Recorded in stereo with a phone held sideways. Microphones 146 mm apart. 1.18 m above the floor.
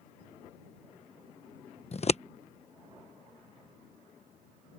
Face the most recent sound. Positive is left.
turn(degrees=45)  # may be behind; listen again after turning